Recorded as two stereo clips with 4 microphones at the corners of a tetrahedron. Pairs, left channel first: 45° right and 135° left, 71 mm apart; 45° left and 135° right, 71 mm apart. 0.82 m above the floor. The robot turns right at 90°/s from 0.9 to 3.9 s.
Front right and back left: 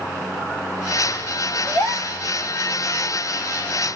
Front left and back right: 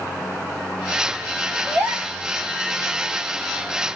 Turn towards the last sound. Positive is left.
turn(degrees=105)